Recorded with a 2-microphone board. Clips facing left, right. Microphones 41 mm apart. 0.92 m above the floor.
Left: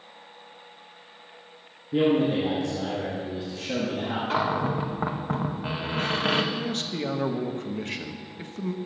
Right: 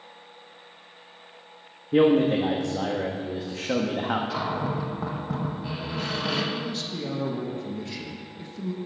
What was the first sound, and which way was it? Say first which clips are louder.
A man speaking: right 3 dB; 65° right (ahead or behind).